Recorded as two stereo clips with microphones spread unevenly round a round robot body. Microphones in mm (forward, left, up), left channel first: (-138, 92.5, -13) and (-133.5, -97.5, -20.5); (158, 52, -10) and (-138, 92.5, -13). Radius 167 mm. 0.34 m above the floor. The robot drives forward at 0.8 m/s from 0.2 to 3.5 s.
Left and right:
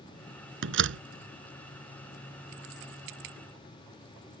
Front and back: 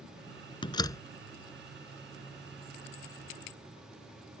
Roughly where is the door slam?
Right.